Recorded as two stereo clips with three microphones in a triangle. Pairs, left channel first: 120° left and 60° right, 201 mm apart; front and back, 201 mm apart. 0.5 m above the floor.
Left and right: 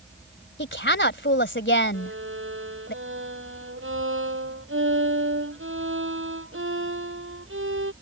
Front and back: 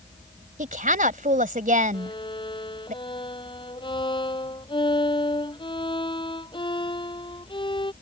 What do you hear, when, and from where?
0.6 s a woman speaking: 135° left
1.9 s a violin: 65° right